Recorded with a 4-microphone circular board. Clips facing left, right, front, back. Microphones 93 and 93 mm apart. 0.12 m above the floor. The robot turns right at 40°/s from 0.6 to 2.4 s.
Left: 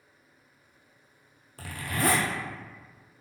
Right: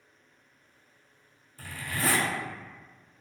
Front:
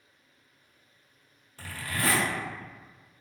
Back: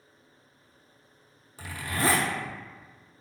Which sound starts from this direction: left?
A zipper, at 1.6 s.